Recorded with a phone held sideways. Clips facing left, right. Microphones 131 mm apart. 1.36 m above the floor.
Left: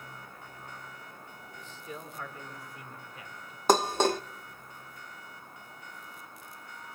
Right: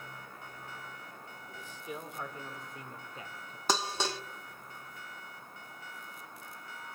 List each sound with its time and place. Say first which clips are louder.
1.5 s a man speaking: right 1 dB; 10° right (ahead or behind), 4 m; by 3.6 s 35° right (ahead or behind), 4 m
3.7 s dishes clattering: left 9 dB; 50° left (ahead or behind), 0.7 m